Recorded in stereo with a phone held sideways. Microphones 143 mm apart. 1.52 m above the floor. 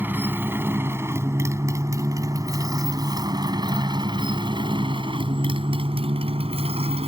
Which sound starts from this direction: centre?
A motorcycle, at 0.0 s.